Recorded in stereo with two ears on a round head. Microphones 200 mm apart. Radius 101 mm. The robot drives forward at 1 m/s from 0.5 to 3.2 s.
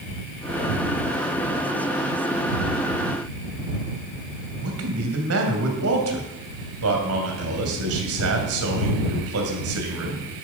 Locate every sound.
4.6 s a man speaking: 70° right (ahead or behind), 2.5 m